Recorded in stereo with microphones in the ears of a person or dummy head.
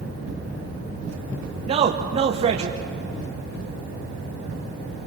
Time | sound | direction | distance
1.7 | a man speaking | 35° right (ahead or behind) | 1.0 m